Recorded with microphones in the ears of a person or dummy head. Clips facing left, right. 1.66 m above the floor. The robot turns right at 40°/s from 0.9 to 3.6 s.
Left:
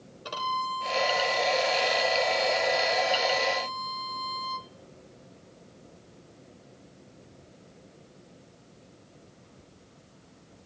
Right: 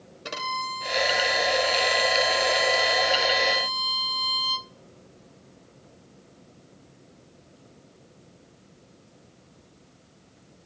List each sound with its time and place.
0.2 s a violin: 150° right, 0.6 m; by 4.7 s 40° right, 0.6 m